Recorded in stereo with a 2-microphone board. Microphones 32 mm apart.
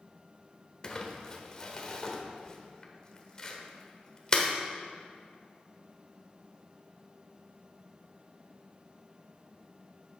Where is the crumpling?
25° left (ahead or behind), 1.2 m.